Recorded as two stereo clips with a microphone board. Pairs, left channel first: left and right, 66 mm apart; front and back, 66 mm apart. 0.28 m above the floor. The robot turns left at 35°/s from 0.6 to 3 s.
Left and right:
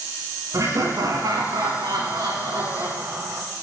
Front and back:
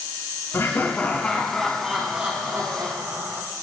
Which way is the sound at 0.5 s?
50° right.